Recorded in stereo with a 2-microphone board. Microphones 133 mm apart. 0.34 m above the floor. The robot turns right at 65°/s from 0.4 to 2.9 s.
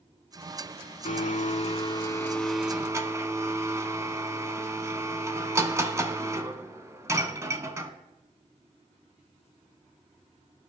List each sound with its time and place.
1.1 s a blender: 85° left, 0.5 m; by 7.9 s 155° right, 0.5 m